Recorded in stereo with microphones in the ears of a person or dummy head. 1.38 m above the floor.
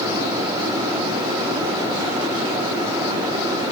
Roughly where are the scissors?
I don't hear scissors.